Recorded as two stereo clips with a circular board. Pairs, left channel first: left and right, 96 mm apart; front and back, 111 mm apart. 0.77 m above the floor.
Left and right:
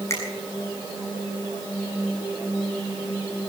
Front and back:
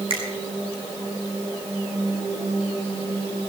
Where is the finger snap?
145° left, 7 m.